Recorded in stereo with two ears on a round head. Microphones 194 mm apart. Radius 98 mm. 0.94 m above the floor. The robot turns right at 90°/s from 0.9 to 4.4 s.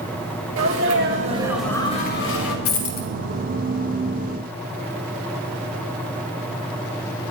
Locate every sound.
0.6 s a sneeze: 65° right, 3.5 m; by 2.5 s 85° left, 3.5 m
2.6 s a dropped coin: 75° left (ahead or behind), 1.9 m; by 3.1 s 35° left (ahead or behind), 1.9 m